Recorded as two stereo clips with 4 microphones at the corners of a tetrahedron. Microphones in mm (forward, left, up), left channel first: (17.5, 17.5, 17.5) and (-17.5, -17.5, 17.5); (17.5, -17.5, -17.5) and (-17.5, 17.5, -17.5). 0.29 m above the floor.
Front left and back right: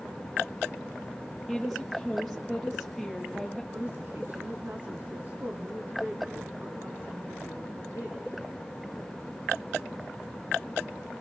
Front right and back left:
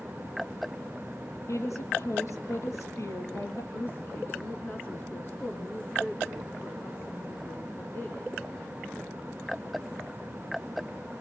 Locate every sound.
1.5 s a woman speaking: 45° right, 8 m
3.7 s a woman speaking: 85° right, 3.5 m